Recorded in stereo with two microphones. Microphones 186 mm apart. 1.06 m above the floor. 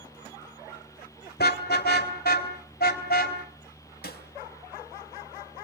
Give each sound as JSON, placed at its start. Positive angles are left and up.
{"t": 1.4, "sound": "a car horn", "side_deg": 65, "distance_m": 2.0}
{"t": 4.0, "sound": "a snare drum", "side_deg": 70, "distance_m": 4.0}